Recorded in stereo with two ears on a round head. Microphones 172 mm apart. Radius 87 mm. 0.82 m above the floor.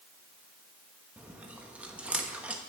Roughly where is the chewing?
Centre.